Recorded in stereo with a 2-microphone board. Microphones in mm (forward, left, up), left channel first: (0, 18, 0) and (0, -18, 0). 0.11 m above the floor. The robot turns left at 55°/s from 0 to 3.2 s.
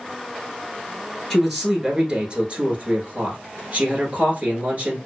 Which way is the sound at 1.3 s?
5° left.